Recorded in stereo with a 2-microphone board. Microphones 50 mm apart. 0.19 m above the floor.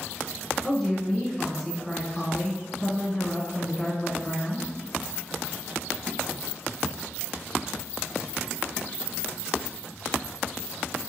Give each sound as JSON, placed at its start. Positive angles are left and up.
{"t": 0.6, "sound": "a woman speaking", "side_deg": 10, "distance_m": 1.4}